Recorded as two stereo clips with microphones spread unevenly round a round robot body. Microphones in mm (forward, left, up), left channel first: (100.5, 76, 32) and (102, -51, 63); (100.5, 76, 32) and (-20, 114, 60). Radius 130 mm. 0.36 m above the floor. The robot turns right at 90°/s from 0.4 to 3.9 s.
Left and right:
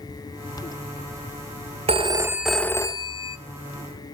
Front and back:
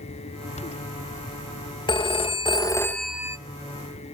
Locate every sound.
1.9 s a phone ringing: 45° right, 0.7 m; by 3.4 s 90° left, 0.7 m